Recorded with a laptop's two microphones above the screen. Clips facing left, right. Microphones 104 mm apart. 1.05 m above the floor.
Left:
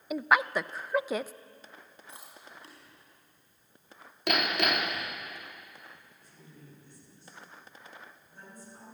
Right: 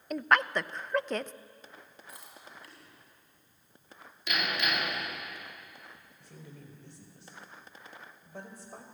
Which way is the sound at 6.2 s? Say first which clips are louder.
Right 4 dB; 85° right.